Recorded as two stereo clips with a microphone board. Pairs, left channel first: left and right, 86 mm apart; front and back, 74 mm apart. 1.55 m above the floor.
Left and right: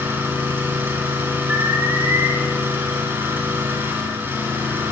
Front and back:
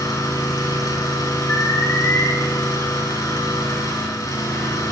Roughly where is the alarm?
Ahead right.